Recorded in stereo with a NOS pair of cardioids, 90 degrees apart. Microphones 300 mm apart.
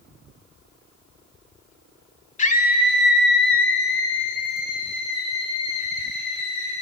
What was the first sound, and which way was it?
A scream, 25° left.